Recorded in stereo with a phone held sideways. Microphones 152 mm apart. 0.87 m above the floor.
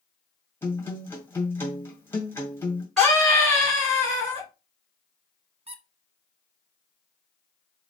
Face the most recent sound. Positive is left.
turn(degrees=-40)  # may be behind; listen again after turning